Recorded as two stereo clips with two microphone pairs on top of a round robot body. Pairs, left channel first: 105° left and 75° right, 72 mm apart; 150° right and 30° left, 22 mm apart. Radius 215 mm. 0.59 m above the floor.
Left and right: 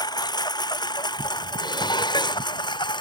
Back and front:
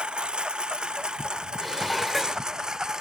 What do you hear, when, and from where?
0.0 s a lawn mower: 80° left; by 3.0 s 95° left
1.6 s dishes clattering: 120° left